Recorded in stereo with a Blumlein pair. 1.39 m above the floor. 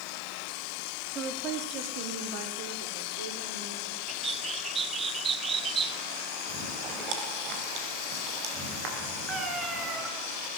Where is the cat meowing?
15° right, 5 m.